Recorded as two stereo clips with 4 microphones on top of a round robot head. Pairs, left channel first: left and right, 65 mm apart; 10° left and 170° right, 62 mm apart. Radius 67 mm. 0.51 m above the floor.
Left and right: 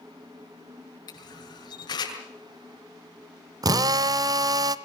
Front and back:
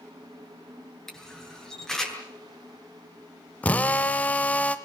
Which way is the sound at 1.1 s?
90° left.